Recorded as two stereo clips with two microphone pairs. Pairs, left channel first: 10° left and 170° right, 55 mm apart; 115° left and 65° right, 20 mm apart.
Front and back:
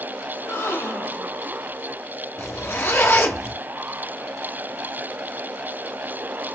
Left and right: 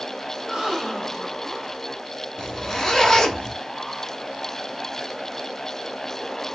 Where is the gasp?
10° left, 1.7 m.